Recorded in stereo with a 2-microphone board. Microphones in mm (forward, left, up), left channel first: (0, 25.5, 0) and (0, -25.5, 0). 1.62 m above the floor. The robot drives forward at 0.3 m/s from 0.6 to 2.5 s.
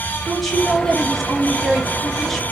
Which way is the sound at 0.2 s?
Centre (ahead or behind).